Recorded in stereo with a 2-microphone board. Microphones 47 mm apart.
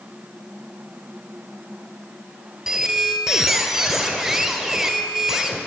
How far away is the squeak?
About 1.3 m.